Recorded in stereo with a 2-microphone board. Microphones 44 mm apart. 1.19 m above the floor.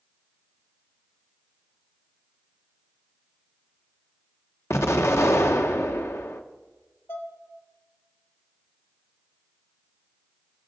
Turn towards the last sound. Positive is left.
turn(degrees=75)  # may be behind; listen again after turning